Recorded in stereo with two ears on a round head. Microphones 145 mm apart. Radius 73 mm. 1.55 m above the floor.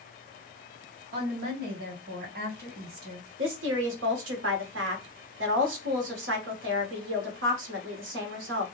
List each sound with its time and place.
1.1 s a woman speaking: 60° right (ahead or behind), 1.7 m
3.4 s a woman speaking: 80° right, 1.3 m